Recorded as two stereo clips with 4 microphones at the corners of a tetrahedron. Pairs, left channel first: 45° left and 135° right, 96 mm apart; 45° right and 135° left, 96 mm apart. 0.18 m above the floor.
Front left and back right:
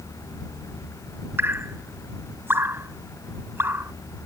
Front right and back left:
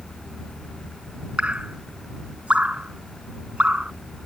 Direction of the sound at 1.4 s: 165° right.